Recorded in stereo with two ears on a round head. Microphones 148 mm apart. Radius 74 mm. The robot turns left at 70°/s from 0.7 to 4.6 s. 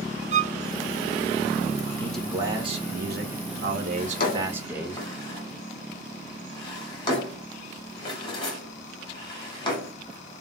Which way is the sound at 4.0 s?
60° left (ahead or behind).